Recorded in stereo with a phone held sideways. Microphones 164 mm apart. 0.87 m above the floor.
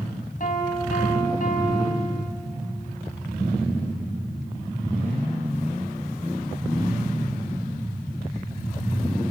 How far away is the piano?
About 2.5 m.